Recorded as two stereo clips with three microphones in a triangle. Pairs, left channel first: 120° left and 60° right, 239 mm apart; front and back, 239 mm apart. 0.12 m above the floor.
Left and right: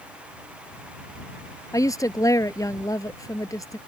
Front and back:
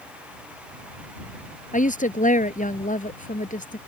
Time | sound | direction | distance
1.7 | a woman speaking | 50° left | ?